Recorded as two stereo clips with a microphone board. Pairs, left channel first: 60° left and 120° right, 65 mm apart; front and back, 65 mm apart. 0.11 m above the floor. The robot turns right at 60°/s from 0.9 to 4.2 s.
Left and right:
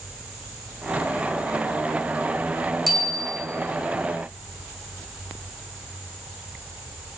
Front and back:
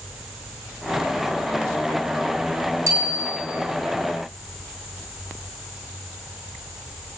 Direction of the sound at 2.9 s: 150° left.